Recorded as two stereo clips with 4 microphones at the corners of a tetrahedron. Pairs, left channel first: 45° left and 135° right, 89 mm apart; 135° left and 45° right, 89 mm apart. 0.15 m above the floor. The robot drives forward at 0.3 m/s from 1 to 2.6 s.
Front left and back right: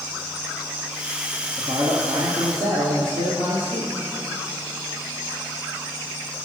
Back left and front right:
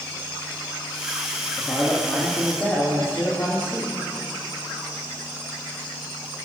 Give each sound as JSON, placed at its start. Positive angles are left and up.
{"t": 1.6, "sound": "a man speaking", "azimuth_deg": -145, "distance_m": 4.0}